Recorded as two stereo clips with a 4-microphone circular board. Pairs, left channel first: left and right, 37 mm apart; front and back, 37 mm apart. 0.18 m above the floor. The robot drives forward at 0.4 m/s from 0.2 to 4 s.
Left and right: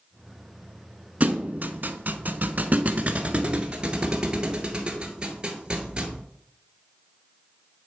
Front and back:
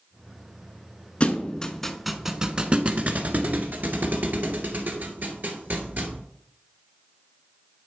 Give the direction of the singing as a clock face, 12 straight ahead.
I don't hear singing.